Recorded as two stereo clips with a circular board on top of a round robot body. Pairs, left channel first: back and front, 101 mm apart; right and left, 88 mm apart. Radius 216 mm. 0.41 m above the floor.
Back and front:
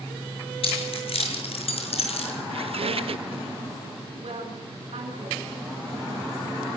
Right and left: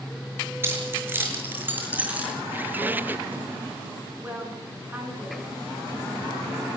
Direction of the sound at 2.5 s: 20° left.